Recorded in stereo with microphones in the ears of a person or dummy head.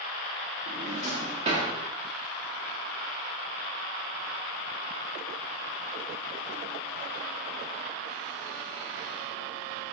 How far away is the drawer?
About 0.7 m.